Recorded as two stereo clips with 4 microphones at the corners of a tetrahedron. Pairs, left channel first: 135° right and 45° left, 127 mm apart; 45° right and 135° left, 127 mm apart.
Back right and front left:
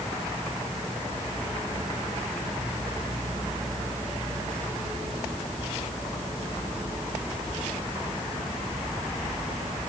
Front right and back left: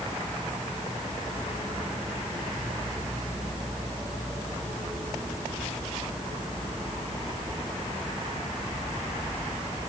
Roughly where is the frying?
I don't hear frying.